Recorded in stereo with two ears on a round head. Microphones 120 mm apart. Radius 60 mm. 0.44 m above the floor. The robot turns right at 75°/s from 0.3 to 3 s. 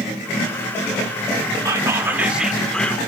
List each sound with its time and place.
1.6 s whispering: 25° right (ahead or behind), 0.8 m; by 3.0 s 10° left (ahead or behind), 0.8 m